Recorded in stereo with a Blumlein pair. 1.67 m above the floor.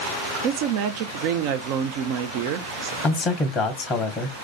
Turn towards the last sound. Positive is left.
turn(degrees=20)